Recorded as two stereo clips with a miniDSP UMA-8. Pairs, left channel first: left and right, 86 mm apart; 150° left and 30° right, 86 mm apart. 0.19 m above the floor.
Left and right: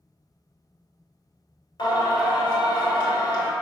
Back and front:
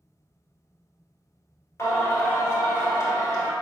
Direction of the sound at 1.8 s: 95° left.